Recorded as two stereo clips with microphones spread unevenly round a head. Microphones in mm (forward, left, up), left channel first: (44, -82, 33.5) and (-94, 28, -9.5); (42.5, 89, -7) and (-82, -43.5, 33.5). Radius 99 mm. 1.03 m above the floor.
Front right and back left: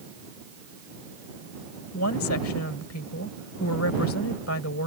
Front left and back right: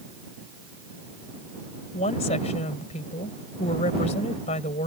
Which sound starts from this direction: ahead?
A woman speaking, at 1.9 s.